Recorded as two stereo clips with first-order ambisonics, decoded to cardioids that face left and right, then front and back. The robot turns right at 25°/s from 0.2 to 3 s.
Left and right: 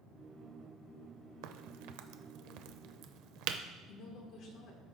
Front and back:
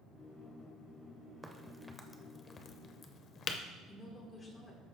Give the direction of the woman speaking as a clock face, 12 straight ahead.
10 o'clock.